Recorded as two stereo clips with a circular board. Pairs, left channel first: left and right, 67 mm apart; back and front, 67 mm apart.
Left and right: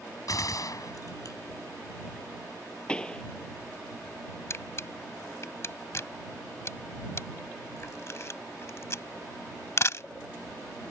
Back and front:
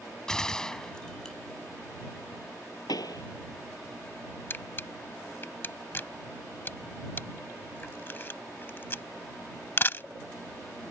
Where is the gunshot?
100° left.